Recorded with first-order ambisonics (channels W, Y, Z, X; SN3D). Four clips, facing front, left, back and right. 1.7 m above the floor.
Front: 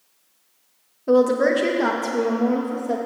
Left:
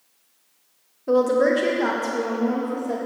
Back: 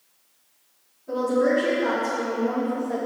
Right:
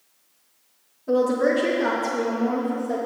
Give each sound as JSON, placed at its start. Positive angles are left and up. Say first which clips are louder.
{"t": 1.1, "sound": "a woman speaking", "louder": "left 2 dB, front 5 dB", "azimuth_deg": 20, "distance_m": 1.2}